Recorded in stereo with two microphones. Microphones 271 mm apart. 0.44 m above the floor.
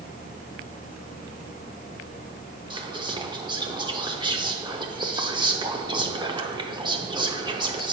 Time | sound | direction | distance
2.7 | whispering | 15° right (ahead or behind) | 0.8 m